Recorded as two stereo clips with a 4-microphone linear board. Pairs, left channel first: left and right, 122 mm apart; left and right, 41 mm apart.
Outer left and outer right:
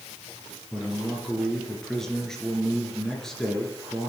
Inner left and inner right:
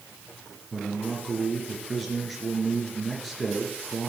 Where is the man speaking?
5° left (ahead or behind), 3 m.